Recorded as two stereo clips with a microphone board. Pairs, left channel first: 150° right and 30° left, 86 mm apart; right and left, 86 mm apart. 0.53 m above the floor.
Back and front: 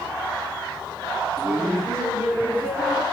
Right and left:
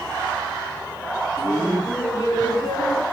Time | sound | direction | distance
1.4 | laughter | 35° right | 8.5 m